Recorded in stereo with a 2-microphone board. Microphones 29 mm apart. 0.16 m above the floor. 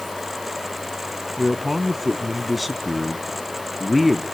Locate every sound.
1.4 s a man speaking: centre (ahead or behind), 1.1 m